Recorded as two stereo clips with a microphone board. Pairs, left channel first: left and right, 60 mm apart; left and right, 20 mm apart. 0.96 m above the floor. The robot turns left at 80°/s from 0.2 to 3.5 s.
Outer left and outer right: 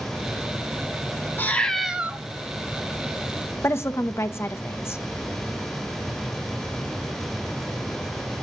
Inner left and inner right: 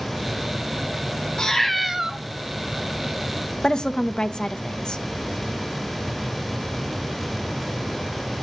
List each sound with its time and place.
1.4 s a cat meowing: 35° left, 1.0 m; by 2.2 s 30° right, 1.0 m
3.6 s a woman speaking: 40° left (ahead or behind), 0.8 m